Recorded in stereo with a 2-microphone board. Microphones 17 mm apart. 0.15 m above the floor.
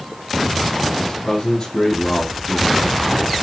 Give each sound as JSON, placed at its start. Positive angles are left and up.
{"t": 1.0, "sound": "a man speaking", "side_deg": 50, "distance_m": 4.5}